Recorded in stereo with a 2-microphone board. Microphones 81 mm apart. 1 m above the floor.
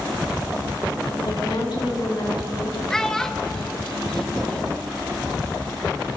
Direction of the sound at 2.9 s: 5° left (ahead or behind).